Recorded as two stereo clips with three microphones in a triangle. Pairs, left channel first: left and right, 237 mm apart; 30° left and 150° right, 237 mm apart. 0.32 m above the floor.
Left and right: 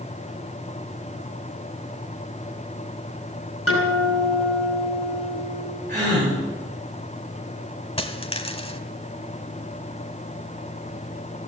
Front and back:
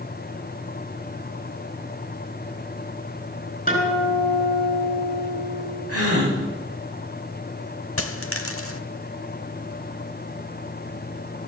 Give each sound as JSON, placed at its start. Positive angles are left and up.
{"t": 3.7, "sound": "a guitar", "azimuth_deg": 85, "distance_m": 4.5}
{"t": 5.9, "sound": "a gasp", "azimuth_deg": -150, "distance_m": 8.5}
{"t": 8.0, "sound": "a dropped coin", "azimuth_deg": 30, "distance_m": 0.7}